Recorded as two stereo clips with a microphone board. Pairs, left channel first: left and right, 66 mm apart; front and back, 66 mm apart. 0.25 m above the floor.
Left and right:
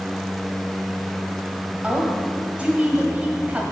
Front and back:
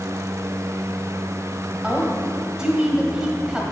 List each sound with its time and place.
1.8 s a woman speaking: 120° right, 1.5 m